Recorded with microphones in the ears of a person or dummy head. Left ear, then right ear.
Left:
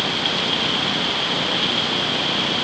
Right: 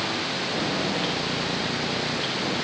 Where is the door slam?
No door slam in this recording.